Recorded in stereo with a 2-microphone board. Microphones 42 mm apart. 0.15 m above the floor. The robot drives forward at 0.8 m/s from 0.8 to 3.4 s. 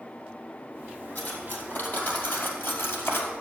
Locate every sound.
1.1 s cutlery clinking: 40° left (ahead or behind), 3 m; by 3.3 s 65° left (ahead or behind), 2 m